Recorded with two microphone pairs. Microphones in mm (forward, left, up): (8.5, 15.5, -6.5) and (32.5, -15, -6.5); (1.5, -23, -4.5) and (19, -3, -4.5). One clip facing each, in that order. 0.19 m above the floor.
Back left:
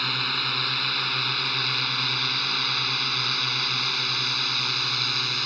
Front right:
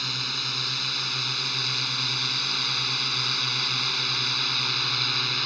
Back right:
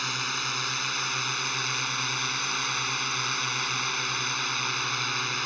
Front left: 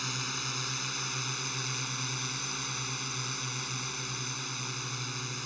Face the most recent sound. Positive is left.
turn(degrees=-140)